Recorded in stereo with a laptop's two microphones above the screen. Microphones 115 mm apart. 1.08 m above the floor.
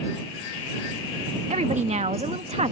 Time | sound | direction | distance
1.5 | a woman speaking | 80° right | ?